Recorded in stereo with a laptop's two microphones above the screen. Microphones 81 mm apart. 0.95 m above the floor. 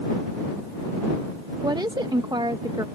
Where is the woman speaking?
60° right (ahead or behind).